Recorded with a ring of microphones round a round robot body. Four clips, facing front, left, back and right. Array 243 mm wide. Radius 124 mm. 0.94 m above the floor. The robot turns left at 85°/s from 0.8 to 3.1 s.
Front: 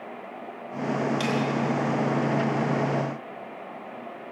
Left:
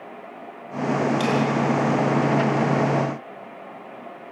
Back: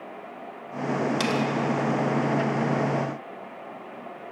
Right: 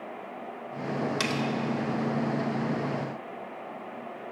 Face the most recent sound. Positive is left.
turn(degrees=65)